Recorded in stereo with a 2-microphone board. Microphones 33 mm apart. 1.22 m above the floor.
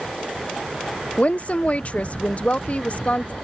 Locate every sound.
1.2 s a woman speaking: 40° left (ahead or behind)